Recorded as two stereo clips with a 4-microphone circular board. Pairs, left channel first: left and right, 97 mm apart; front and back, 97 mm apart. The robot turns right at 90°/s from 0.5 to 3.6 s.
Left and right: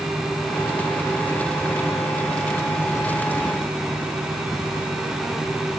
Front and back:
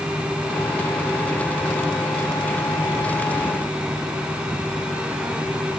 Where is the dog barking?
No dog barking in this recording.